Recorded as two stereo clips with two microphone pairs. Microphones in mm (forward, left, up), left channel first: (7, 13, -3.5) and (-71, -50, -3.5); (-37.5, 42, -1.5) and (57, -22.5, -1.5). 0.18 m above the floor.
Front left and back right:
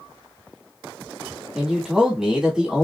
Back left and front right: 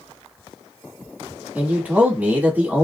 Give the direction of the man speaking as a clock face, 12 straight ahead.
3 o'clock.